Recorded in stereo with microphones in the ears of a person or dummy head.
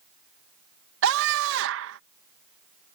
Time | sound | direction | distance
1.0 | a scream | 80° right | ?